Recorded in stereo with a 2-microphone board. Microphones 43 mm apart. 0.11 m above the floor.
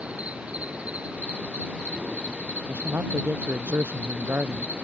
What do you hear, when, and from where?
0.0 s an insect: 25° right (ahead or behind)
2.7 s a man speaking: 60° right (ahead or behind)